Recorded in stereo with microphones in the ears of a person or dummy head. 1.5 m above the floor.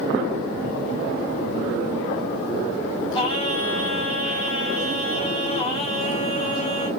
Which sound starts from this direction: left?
Singing, at 3.1 s.